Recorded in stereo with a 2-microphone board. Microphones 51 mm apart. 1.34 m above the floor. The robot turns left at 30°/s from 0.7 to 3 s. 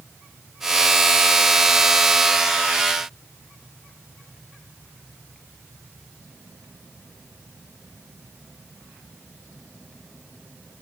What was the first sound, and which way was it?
Only background noise.